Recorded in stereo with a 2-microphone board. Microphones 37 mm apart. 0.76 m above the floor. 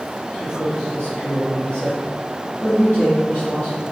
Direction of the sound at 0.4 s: 45° left (ahead or behind).